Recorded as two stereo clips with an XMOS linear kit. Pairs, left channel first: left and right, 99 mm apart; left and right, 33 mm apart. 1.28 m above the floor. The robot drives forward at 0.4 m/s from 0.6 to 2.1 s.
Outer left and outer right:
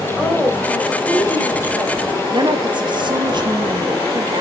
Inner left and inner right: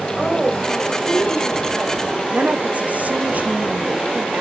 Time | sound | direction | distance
0.2 | a woman speaking | 10° left (ahead or behind) | 4.5 m
2.3 | a woman speaking | 50° right (ahead or behind) | 2.5 m